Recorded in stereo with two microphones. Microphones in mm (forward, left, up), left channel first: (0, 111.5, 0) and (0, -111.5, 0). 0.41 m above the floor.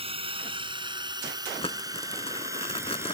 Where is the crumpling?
25° left (ahead or behind).